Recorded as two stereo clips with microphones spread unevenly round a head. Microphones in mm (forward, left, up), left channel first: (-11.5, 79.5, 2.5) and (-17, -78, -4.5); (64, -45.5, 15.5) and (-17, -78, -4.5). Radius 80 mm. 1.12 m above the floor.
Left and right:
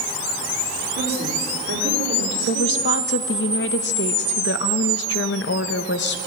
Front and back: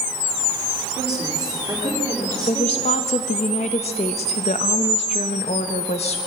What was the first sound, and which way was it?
A woman speaking, 100° right.